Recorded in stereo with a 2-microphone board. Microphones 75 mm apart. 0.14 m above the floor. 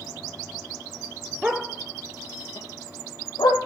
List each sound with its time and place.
1.4 s a dog barking: 10° right (ahead or behind), 0.7 m; by 3.6 s 75° left (ahead or behind), 1.3 m